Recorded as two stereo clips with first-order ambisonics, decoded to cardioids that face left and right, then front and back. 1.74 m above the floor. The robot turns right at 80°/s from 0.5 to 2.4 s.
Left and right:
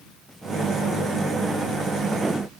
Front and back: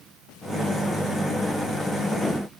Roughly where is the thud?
I don't hear a thud.